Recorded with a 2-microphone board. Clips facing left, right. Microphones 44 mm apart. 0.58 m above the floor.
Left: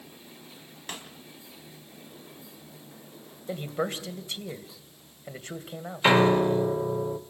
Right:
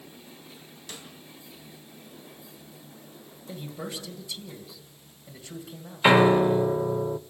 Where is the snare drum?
55° left (ahead or behind), 3 m.